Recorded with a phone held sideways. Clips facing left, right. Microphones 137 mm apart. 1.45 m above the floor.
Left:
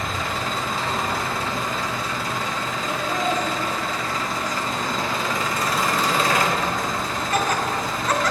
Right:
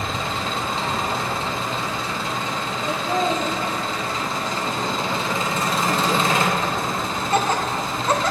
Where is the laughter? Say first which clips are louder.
Right 3 dB; 30° right (ahead or behind), 0.6 m.